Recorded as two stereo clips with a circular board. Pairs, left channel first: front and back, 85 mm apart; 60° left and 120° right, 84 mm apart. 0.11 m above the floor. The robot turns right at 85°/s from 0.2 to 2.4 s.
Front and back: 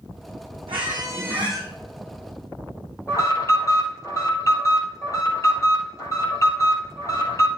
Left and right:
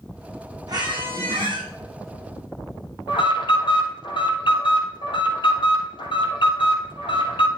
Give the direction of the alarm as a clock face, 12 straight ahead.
10 o'clock.